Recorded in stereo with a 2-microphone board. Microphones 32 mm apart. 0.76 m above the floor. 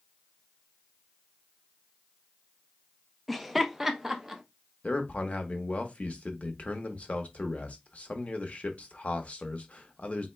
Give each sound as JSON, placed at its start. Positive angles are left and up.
{"t": 3.3, "sound": "laughter", "side_deg": 0, "distance_m": 0.6}
{"t": 4.8, "sound": "a man speaking", "side_deg": 45, "distance_m": 1.0}